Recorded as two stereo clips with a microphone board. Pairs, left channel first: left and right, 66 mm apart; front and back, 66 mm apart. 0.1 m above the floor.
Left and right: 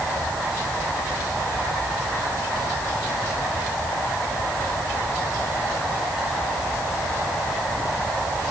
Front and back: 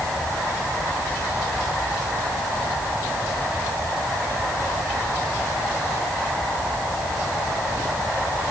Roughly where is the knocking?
No knocking in this recording.